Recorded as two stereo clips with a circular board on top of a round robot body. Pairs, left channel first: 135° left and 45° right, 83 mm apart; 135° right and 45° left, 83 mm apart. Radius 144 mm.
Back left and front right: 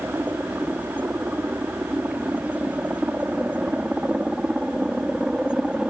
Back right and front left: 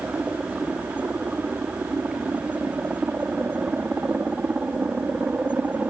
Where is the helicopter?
10° right; by 5.9 s 10° left.